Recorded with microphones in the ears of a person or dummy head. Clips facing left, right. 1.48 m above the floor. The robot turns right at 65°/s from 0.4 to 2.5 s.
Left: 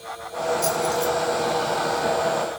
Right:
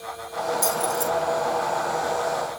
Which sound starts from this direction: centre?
Keys jangling, at 0.6 s.